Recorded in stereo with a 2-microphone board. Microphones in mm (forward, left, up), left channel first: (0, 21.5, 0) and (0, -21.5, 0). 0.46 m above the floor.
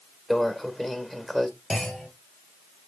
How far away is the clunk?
About 2 m.